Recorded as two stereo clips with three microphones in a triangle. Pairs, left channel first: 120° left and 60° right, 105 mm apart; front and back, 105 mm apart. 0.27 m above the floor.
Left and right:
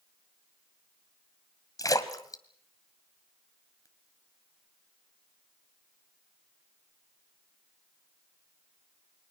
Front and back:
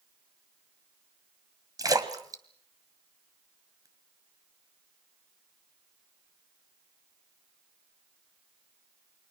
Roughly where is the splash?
Behind left.